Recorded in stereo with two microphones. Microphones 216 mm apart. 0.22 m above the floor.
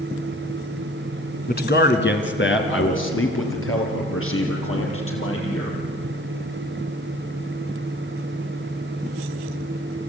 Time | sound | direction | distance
1.5 | a man speaking | 50° left (ahead or behind) | 1.8 m